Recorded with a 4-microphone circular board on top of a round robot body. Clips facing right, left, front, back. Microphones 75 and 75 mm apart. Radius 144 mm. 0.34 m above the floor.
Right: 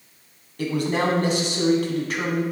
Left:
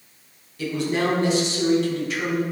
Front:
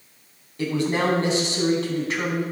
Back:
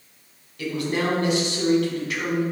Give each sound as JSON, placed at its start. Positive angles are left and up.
{"t": 0.6, "sound": "a man speaking", "azimuth_deg": -55, "distance_m": 4.5}